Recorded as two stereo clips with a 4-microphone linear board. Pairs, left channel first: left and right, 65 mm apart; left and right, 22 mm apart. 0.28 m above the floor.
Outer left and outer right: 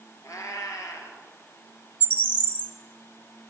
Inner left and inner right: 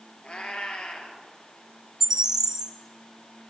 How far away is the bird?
About 0.8 m.